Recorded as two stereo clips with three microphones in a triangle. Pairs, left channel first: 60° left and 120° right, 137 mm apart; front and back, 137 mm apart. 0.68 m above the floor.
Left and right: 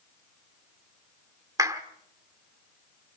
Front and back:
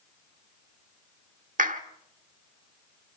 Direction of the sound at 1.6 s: 175° left.